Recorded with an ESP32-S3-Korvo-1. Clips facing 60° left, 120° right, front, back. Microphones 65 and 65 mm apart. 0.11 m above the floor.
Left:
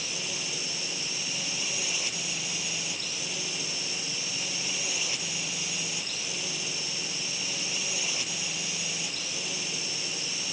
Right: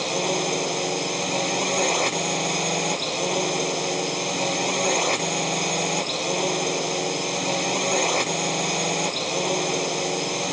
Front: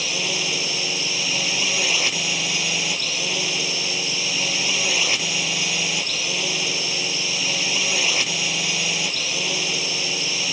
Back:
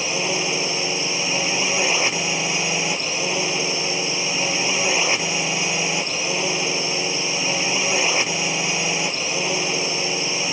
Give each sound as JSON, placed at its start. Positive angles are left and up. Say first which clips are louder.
{"t": 0.0, "sound": "a drone", "louder": "right 14 dB, back 3 dB", "azimuth_deg": -120}